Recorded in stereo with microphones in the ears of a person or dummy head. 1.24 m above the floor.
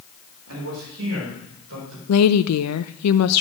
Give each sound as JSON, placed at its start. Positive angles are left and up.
{"t": 0.5, "sound": "a man speaking", "side_deg": -90, "distance_m": 3.5}
{"t": 2.1, "sound": "a woman speaking", "side_deg": 80, "distance_m": 0.6}